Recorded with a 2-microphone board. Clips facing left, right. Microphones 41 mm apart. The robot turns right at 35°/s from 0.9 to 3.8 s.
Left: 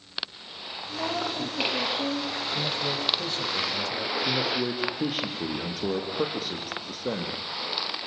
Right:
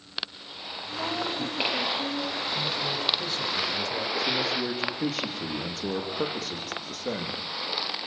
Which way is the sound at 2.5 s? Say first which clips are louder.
Even; 125° left.